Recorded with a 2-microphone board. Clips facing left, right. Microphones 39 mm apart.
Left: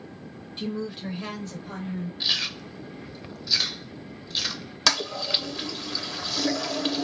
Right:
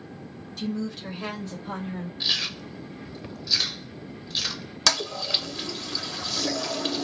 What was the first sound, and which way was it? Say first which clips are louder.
A woman speaking: right 1 dB; 30° left (ahead or behind).